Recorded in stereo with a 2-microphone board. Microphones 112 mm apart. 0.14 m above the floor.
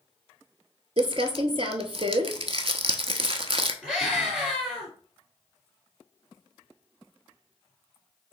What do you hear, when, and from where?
1.0 s crumpling: 55° right (ahead or behind), 0.5 m
3.8 s a scream: centre (ahead or behind), 2 m